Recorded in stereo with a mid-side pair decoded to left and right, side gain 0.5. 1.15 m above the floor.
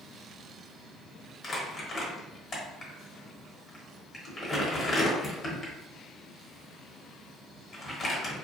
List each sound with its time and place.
1.4 s crumpling: 35° left, 1.0 m